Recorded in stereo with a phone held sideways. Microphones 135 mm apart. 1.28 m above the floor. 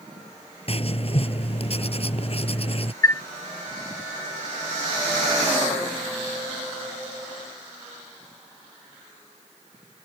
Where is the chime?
20° left (ahead or behind).